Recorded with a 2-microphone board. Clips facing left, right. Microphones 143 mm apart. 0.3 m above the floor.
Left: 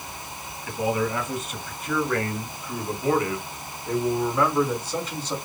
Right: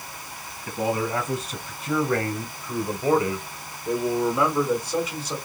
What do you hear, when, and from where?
0.7 s a man speaking: 35° right (ahead or behind), 2.5 m; by 5.4 s 5° right (ahead or behind), 1.7 m